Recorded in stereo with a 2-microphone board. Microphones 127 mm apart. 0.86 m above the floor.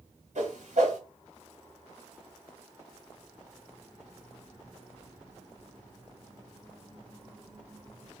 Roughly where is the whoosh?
Right.